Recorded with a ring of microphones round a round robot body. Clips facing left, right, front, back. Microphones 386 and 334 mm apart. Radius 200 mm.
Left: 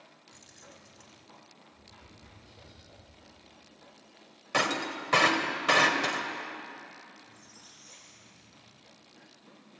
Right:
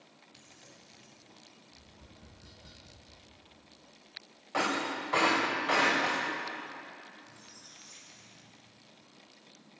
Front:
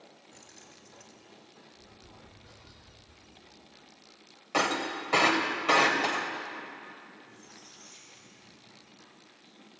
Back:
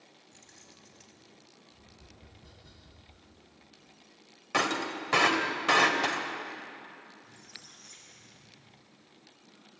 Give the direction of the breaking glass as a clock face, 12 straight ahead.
8 o'clock.